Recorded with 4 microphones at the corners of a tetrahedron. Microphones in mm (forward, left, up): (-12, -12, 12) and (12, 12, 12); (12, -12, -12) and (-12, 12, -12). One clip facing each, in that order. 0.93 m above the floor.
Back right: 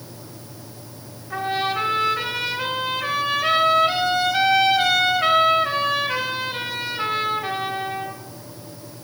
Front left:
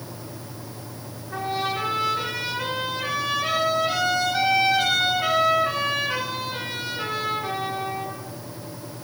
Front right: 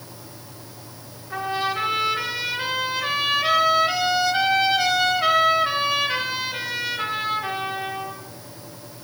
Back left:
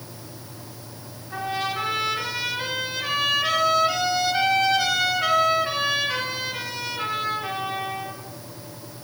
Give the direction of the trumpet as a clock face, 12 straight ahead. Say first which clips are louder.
Back right 3 dB, front right 2 dB; 3 o'clock.